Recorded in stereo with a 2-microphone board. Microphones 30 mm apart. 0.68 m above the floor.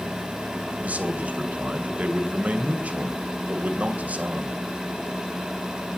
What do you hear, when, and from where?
0.8 s a man speaking: 60° right (ahead or behind), 2.5 m